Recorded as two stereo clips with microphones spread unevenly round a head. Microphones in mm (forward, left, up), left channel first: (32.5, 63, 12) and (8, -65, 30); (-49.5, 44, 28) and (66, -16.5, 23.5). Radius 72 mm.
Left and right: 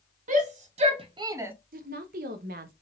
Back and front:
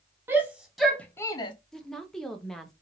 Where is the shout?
95° right, 0.8 m; by 1.5 s 175° right, 0.5 m.